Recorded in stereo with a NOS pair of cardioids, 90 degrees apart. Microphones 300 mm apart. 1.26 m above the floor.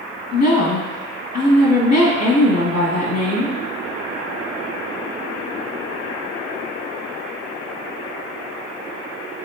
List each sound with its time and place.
0.3 s a woman speaking: 60° left, 1.6 m